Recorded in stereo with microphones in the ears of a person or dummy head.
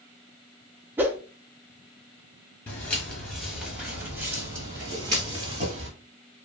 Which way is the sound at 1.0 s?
15° right (ahead or behind).